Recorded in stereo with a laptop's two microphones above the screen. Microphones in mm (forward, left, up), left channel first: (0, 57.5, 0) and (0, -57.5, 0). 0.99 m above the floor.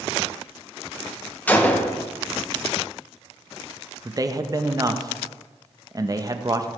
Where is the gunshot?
15° left (ahead or behind), 0.8 m.